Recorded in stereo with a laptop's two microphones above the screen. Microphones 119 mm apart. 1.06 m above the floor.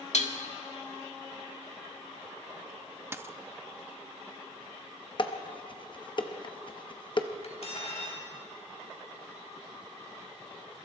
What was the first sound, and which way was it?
Dishes clattering, 75° left (ahead or behind).